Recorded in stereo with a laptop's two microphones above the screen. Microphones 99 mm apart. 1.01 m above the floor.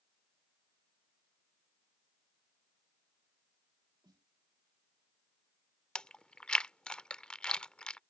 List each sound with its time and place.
4.0 s a snare drum: 45° right (ahead or behind)
6.0 s chewing: 10° left (ahead or behind)